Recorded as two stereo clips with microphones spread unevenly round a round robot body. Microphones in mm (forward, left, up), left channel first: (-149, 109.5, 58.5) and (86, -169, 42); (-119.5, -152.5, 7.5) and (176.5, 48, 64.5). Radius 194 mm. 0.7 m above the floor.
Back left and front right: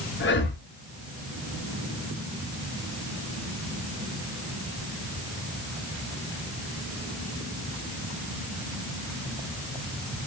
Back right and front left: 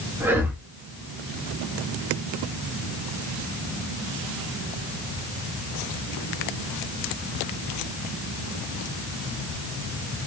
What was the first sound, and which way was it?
Breathing, 130° left.